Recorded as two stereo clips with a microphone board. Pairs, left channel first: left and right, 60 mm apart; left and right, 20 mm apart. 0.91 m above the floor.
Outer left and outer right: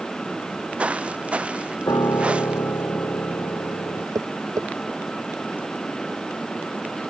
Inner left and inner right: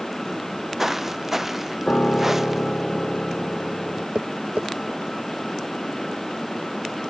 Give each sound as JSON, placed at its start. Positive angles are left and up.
{"t": 0.4, "sound": "footsteps", "side_deg": -20}
{"t": 1.9, "sound": "a piano", "side_deg": 80}
{"t": 4.2, "sound": "tapping", "side_deg": -80}